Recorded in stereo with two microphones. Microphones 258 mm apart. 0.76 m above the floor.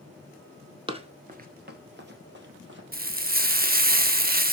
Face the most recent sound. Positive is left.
turn(degrees=-35)  # may be behind; listen again after turning